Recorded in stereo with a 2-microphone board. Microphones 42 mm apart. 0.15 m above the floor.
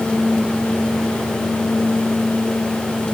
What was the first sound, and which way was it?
Only background noise.